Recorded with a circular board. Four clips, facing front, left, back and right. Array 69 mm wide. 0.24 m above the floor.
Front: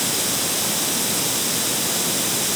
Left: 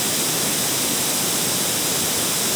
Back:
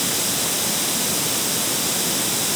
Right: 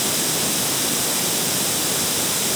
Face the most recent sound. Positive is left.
No sound to turn to.